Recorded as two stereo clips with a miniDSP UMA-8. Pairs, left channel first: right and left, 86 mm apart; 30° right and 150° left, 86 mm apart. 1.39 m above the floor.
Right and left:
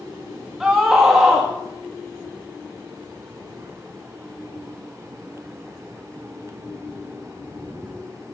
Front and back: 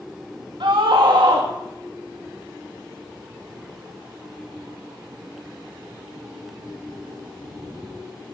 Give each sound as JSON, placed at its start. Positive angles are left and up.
{"t": 0.6, "sound": "a scream", "azimuth_deg": 175, "distance_m": 2.0}